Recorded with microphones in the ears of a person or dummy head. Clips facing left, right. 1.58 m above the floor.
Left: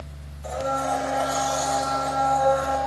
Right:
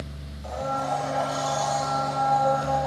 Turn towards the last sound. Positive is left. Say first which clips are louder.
# left 2 dB
turn(degrees=30)  # may be behind; listen again after turning